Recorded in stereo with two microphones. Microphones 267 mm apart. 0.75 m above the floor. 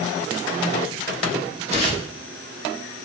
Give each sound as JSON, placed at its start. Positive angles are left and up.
{"t": 1.7, "sound": "tearing paper", "side_deg": -25, "distance_m": 2.0}